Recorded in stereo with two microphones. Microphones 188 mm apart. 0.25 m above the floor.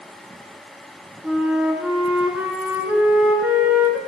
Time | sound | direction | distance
1.2 | a flute | 10° right (ahead or behind) | 3 m